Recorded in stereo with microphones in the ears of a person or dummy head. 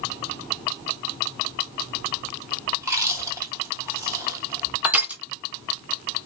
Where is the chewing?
20° right (ahead or behind), 0.8 m.